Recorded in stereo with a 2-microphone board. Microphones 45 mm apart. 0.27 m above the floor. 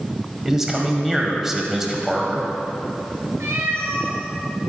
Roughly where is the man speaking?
Centre.